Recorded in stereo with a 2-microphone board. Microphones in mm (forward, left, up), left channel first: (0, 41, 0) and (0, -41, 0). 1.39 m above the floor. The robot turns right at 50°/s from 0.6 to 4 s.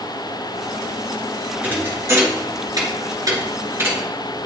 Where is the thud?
20° right (ahead or behind), 2 m; by 4.1 s 25° right (ahead or behind), 2 m.